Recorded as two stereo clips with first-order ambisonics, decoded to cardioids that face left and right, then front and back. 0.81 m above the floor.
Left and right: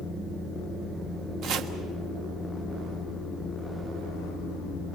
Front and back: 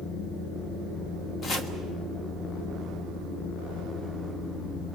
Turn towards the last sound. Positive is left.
turn(degrees=-60)